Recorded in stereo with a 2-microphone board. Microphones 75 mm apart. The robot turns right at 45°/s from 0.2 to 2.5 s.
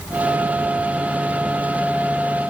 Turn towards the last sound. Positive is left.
No sound to turn to.